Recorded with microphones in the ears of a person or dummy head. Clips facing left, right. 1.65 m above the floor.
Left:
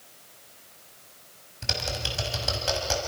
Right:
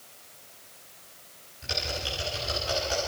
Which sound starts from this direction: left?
Typing on a keyboard, at 1.6 s.